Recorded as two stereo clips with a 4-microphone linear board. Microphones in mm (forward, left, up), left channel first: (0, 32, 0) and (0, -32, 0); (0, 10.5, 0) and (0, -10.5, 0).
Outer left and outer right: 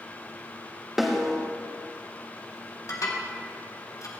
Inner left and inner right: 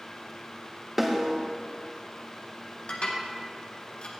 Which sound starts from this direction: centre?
A snare drum, at 1.0 s.